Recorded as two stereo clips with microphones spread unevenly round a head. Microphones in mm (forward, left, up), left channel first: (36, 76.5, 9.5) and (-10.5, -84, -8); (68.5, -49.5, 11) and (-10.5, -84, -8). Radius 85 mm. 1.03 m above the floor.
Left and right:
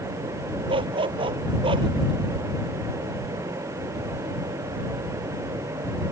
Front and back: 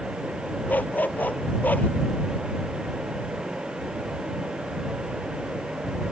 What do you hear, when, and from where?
0.7 s a dog barking: 45° right